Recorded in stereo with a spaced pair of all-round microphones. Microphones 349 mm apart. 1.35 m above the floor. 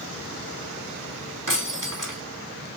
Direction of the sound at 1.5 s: 65° right (ahead or behind).